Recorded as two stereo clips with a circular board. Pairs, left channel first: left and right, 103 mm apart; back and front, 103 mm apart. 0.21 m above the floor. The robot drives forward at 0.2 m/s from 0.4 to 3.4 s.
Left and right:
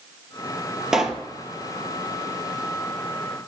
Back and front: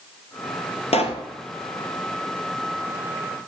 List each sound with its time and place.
0.9 s a pop: 175° right, 1.0 m